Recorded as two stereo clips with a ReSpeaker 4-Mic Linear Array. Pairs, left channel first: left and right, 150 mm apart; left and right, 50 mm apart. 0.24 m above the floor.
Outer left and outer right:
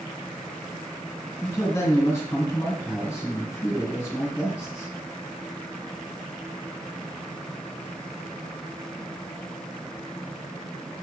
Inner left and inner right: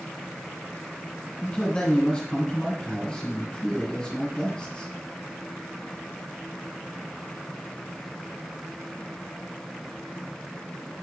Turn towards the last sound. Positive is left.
turn(degrees=20)  # may be behind; listen again after turning